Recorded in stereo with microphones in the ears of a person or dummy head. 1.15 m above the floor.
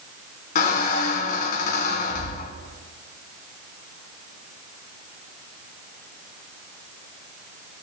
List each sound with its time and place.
0.6 s a squeak: 50° left (ahead or behind), 2 m